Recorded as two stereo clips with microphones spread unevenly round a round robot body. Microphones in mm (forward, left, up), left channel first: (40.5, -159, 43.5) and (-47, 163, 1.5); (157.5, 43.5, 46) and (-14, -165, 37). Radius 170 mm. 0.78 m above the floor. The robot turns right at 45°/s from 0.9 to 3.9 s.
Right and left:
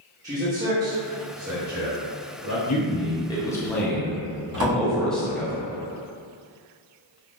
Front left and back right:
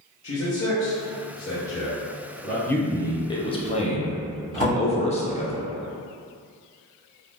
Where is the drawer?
150° left, 1.7 m.